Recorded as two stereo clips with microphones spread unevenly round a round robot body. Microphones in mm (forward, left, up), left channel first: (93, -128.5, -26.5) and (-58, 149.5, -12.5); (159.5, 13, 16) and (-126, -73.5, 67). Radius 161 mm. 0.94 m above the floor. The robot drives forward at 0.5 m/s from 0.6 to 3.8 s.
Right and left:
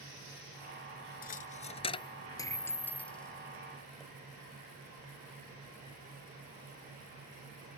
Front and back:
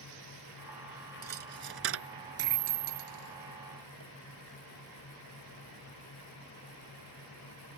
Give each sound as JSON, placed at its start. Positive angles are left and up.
{"t": 1.2, "sound": "a dropped coin", "azimuth_deg": -120}